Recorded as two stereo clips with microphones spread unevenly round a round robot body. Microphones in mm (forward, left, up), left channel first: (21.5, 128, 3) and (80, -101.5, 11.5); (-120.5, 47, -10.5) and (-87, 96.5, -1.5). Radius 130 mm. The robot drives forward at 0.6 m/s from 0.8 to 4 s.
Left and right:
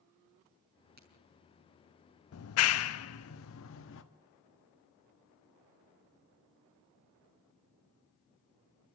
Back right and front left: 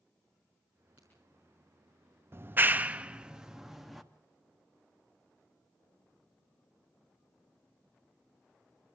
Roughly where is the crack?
Ahead right.